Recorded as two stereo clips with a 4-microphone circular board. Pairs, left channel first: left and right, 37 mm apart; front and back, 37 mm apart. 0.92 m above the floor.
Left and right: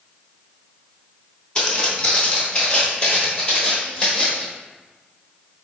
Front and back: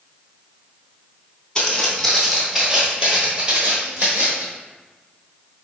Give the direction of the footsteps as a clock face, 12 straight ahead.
10 o'clock.